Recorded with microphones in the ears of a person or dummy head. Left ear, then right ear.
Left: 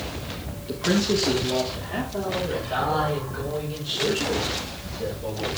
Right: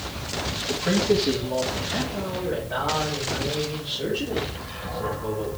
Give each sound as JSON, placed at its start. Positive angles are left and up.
{"t": 0.7, "sound": "a man speaking", "side_deg": 5, "distance_m": 1.4}